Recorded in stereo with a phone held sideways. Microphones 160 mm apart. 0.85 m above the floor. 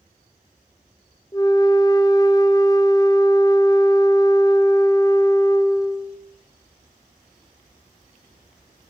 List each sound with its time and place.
1.3 s a flute: 20° left (ahead or behind), 0.5 m